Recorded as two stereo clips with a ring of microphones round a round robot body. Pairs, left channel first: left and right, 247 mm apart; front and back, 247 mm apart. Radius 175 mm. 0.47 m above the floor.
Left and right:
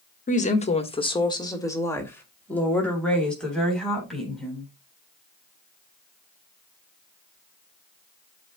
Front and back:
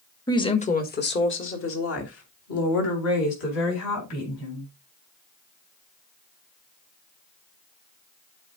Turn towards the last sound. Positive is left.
turn(degrees=0)